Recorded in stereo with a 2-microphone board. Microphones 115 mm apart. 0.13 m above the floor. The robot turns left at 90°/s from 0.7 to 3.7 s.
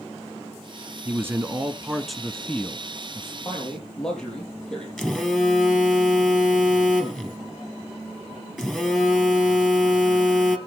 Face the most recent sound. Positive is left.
turn(degrees=0)  # may be behind; listen again after turning